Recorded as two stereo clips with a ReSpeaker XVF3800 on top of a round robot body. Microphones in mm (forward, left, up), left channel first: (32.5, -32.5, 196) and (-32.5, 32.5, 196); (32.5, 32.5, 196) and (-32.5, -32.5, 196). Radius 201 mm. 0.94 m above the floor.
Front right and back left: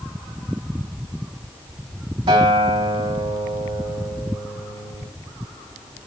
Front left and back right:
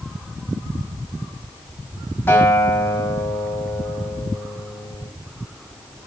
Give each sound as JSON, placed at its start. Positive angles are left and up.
{"t": 2.3, "sound": "a guitar", "azimuth_deg": 110, "distance_m": 3.0}